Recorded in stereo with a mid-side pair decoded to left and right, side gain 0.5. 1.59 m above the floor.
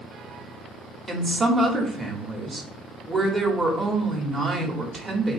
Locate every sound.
1.1 s a woman speaking: 20° right, 1.0 m